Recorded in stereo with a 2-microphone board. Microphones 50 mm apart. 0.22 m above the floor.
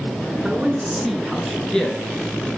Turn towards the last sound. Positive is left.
turn(degrees=20)  # may be behind; listen again after turning